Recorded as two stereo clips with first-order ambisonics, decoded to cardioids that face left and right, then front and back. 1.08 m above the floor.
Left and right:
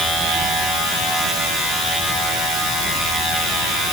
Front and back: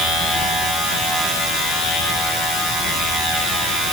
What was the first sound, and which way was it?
Only background noise.